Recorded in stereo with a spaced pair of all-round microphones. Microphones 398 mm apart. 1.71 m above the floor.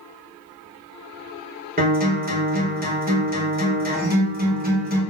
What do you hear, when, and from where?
1.8 s a guitar: 20° right (ahead or behind), 1.2 m